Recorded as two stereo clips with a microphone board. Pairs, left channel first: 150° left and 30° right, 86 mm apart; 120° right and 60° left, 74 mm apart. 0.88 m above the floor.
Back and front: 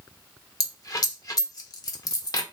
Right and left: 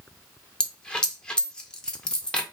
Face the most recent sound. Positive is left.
turn(degrees=165)